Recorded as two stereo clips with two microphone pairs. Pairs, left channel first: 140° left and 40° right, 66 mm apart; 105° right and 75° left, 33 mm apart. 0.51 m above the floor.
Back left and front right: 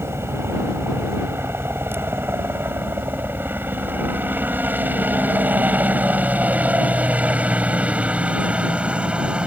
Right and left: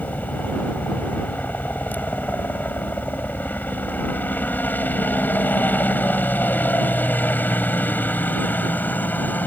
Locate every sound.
0.0 s a helicopter: 85° right; by 9.5 s 110° right